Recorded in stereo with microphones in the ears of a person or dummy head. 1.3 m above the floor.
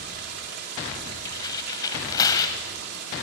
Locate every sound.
0.0 s running water: 50° right (ahead or behind), 3 m
1.2 s tearing paper: 20° left (ahead or behind), 1.5 m